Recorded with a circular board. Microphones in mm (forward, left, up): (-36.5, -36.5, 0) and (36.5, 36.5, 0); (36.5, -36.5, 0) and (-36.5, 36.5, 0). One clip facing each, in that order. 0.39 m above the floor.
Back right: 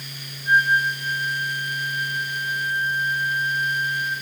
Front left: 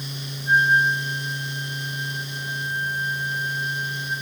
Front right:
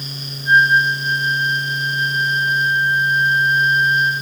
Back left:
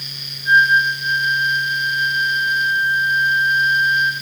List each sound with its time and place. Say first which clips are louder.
0.5 s a flute: front left 1 dB, front right 1 dB; 160° right, 5 m